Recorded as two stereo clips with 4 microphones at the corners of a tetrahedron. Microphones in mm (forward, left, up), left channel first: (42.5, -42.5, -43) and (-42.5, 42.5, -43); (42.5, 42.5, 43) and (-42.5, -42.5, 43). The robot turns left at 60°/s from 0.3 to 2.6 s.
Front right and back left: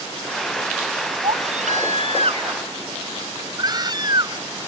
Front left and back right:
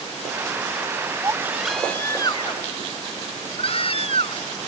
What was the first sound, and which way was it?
A baby crying, 165° left.